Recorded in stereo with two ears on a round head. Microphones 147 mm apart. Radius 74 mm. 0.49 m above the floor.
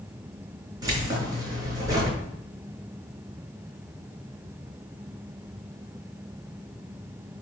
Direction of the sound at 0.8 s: 25° right (ahead or behind).